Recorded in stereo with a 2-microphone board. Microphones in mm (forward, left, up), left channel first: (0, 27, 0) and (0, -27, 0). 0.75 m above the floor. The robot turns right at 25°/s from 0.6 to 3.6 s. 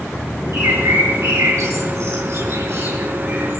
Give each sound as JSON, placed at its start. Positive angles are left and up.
{"t": 0.5, "sound": "a bird", "side_deg": -65, "distance_m": 6.0}